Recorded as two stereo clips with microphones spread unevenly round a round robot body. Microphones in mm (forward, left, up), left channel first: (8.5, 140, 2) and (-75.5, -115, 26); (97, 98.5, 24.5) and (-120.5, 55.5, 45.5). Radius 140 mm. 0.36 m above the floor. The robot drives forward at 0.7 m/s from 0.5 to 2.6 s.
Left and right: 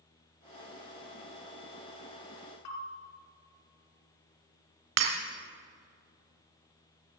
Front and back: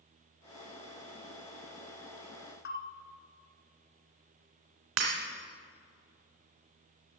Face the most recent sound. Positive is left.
turn(degrees=-140)